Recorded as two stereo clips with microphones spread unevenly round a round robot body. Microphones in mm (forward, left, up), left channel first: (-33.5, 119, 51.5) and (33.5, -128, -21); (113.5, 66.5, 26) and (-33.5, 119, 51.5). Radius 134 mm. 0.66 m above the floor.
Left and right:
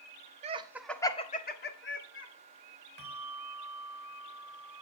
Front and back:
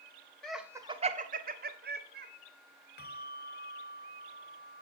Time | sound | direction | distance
0.4 | laughter | 90° right | 1.0 m
3.0 | a bell | 10° right | 1.6 m